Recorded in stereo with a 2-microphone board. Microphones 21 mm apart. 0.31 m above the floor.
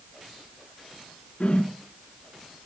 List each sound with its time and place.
1.4 s a whoosh: 45° left (ahead or behind), 3 m